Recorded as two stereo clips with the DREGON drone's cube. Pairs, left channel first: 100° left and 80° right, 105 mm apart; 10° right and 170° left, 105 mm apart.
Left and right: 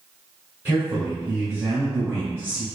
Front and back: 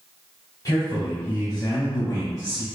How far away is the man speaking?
About 1.5 m.